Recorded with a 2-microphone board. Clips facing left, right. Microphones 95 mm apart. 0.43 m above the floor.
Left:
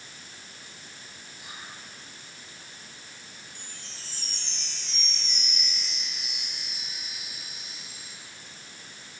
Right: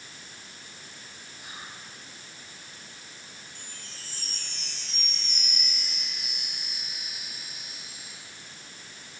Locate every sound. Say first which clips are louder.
1.4 s whispering: even; 40° right (ahead or behind), 8 m
3.5 s a chime: even; 45° right (ahead or behind), 3.5 m